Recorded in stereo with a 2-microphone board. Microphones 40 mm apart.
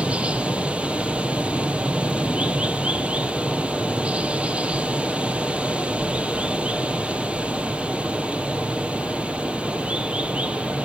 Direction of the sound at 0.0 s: 30° right (ahead or behind).